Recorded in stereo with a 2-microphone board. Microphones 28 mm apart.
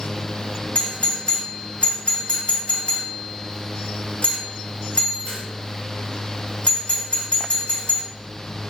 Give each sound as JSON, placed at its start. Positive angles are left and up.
{"t": 0.8, "sound": "a doorbell", "side_deg": 50, "distance_m": 1.2}